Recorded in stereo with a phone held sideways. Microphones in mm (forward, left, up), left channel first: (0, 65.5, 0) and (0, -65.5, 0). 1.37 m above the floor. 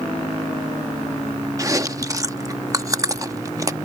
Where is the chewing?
25° right (ahead or behind).